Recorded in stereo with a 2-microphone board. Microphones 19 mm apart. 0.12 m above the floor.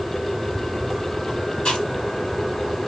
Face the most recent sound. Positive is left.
turn(degrees=65)  # may be behind; listen again after turning